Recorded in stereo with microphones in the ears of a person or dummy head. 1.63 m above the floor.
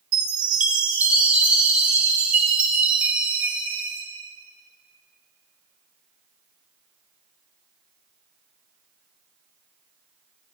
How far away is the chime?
About 1.7 m.